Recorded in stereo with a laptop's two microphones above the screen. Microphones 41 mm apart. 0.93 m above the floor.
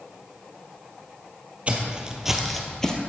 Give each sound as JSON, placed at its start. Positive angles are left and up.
{"t": 1.7, "sound": "footsteps", "side_deg": -30, "distance_m": 1.3}